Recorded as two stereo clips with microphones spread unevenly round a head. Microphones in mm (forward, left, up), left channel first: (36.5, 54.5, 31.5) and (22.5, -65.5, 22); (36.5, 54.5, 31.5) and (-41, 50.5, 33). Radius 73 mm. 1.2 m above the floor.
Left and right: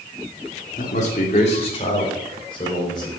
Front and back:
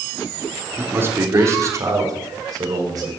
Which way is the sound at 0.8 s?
120° left.